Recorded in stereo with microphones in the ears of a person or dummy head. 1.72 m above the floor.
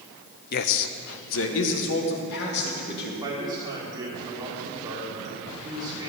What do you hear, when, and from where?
0.5 s a man speaking: 50° left (ahead or behind), 0.7 m; by 3.1 s 60° left (ahead or behind), 4 m
3.2 s a man speaking: 15° right (ahead or behind), 4 m